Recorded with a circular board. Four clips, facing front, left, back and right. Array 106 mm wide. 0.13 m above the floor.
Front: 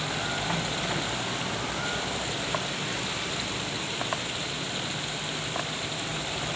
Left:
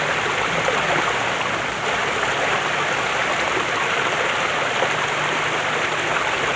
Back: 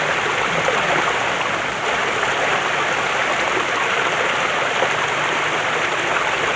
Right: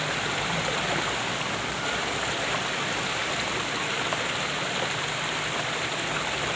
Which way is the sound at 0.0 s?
150° left.